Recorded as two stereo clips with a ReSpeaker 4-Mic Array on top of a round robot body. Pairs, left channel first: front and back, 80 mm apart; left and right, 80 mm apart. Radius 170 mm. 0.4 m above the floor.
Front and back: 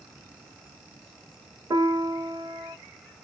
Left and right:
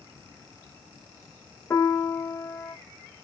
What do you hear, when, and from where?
1.7 s a piano: 145° left, 1.1 m